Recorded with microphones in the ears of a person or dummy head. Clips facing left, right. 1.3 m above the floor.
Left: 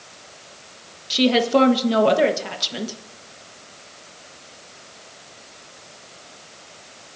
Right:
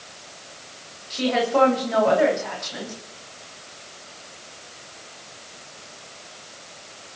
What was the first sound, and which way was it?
A woman speaking, 50° left (ahead or behind).